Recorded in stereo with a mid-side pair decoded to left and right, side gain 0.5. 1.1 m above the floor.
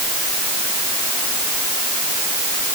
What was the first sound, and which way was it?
Only background noise.